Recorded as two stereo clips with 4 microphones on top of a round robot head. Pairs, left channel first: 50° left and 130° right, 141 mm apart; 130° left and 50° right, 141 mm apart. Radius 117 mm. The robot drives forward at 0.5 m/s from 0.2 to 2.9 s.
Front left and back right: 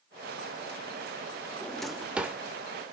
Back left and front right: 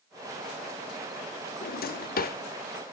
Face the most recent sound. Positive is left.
turn(degrees=155)